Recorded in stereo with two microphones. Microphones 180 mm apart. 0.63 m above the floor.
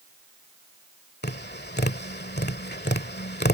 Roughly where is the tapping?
Left.